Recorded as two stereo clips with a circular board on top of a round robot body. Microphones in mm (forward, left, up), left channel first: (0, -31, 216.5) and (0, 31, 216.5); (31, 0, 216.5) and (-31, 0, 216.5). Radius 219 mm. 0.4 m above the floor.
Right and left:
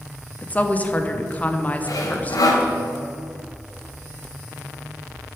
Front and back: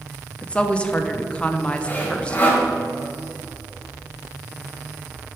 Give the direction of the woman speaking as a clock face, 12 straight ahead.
2 o'clock.